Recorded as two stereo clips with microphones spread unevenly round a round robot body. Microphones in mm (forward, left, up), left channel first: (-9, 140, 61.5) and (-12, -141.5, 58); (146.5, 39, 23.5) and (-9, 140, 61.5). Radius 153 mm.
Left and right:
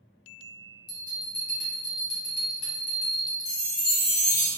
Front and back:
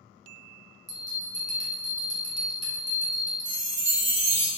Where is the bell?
90° left, 1.6 m.